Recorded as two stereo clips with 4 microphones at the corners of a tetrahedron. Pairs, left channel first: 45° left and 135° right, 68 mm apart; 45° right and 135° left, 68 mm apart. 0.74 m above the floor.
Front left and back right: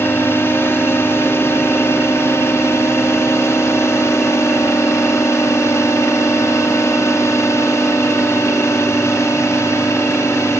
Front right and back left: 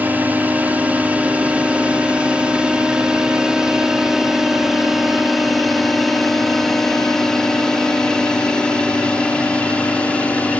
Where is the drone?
80° left; by 10.6 s 20° left.